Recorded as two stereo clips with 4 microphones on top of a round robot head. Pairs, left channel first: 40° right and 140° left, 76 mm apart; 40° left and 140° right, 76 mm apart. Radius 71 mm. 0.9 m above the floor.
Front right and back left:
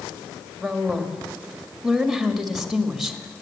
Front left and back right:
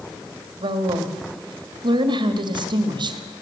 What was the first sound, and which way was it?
A woman speaking, 135° right.